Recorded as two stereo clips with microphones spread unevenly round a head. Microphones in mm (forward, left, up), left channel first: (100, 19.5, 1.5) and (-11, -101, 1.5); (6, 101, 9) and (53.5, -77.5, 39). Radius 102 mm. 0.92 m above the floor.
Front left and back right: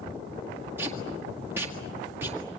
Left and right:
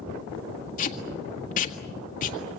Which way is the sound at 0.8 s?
150° left.